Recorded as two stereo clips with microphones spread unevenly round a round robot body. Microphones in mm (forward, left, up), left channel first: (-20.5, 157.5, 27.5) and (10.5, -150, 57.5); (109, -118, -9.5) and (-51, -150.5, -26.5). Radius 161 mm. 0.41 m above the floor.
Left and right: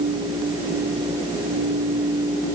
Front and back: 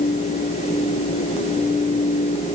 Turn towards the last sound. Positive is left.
No sound to turn to.